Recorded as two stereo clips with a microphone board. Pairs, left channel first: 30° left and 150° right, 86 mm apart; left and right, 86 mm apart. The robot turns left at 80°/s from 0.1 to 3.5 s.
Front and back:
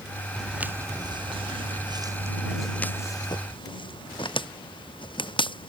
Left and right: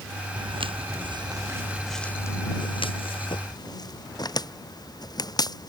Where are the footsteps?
55° right; by 5.7 s 45° left.